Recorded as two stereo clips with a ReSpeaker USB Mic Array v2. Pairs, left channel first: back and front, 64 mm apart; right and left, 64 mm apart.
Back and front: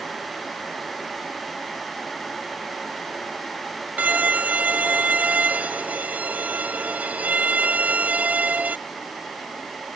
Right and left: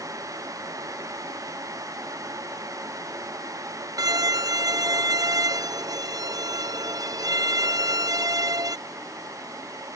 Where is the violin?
70° left.